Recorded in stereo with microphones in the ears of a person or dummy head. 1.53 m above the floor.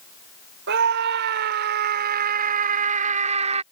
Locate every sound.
0.7 s a scream: 65° right (ahead or behind); by 3.6 s 40° right (ahead or behind)